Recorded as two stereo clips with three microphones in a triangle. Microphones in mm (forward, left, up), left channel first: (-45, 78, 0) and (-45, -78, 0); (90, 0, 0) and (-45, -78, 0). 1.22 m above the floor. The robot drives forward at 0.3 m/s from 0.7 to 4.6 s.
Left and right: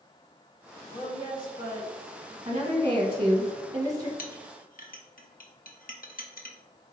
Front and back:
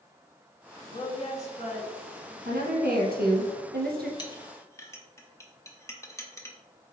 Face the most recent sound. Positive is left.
turn(degrees=100)